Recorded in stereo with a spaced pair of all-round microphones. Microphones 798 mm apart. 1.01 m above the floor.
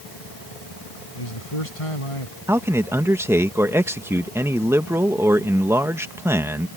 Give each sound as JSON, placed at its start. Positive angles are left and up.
{"t": 1.1, "sound": "a man speaking", "side_deg": 40}
{"t": 2.5, "sound": "a man speaking", "side_deg": -5}